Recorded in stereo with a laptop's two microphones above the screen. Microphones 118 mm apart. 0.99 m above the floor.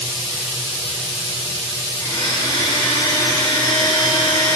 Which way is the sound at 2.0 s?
35° left (ahead or behind).